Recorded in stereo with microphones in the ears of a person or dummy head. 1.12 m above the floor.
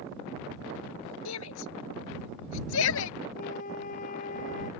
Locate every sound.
1.2 s a shout: 80° left
3.4 s a flute: 50° left (ahead or behind)